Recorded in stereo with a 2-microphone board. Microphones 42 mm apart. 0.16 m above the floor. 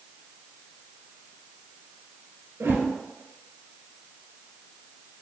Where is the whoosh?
70° right (ahead or behind), 1.2 m.